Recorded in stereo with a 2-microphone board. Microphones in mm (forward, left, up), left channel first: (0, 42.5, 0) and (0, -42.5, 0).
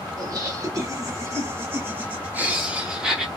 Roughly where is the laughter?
Right.